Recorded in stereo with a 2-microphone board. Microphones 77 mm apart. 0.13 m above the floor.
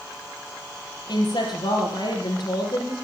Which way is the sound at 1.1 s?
65° left (ahead or behind).